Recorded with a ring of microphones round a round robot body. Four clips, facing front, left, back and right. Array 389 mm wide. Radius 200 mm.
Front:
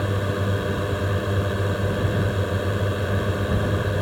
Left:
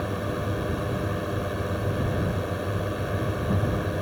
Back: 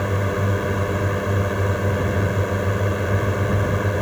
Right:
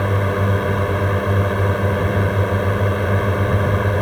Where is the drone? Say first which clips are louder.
Right 9 dB, back 2 dB; 105° right.